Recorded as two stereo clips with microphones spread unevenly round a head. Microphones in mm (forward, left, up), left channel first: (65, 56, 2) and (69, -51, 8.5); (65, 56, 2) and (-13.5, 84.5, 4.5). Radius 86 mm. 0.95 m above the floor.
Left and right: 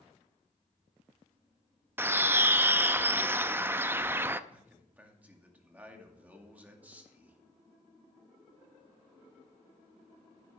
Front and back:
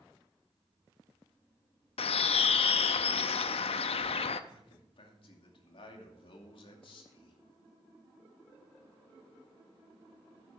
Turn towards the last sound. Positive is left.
turn(degrees=-15)